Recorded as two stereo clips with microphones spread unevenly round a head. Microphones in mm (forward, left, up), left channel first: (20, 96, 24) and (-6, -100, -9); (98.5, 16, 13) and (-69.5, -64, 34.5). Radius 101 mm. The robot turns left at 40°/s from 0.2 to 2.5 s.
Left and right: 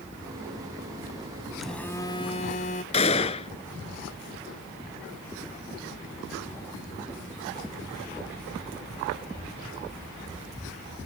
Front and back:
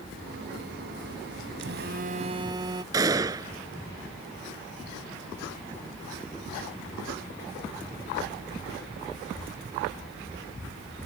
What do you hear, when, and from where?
1.6 s a phone buzzing: 170° left; by 2.8 s 135° left
2.9 s a gunshot: 135° left